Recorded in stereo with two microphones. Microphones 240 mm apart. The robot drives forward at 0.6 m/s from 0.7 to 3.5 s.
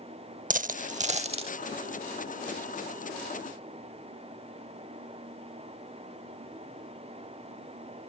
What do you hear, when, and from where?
0.5 s a dropped coin: 35° right (ahead or behind); by 1.5 s 25° right (ahead or behind)